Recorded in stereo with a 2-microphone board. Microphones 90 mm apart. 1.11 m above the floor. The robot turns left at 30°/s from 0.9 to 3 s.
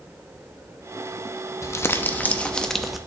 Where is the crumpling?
40° left, 0.6 m; by 3.0 s straight ahead, 0.6 m.